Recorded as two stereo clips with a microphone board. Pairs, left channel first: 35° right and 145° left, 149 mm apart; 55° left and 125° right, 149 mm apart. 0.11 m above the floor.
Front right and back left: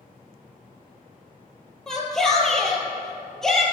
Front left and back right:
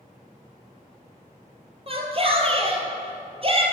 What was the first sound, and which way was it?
A shout, 120° right.